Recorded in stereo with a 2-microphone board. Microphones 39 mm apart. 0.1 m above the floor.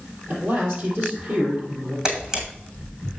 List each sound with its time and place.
0.3 s a man speaking: 55° right (ahead or behind), 3.5 m
2.0 s a camera shutter: 20° right (ahead or behind), 1.8 m